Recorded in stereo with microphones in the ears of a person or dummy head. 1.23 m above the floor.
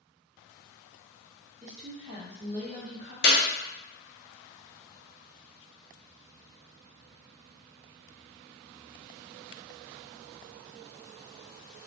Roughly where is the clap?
Left.